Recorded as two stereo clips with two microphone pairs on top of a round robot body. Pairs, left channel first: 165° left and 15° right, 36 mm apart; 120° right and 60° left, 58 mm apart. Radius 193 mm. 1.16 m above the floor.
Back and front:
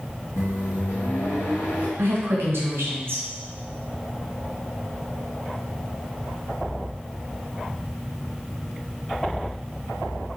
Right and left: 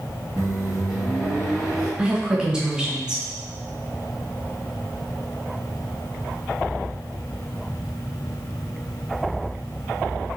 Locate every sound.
0.4 s a microwave: 145° left, 2 m
2.0 s a woman speaking: 20° right, 1.6 m